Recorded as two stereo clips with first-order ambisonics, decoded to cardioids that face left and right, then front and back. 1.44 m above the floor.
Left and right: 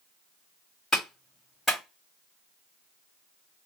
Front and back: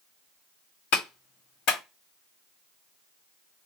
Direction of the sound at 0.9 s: 15° left.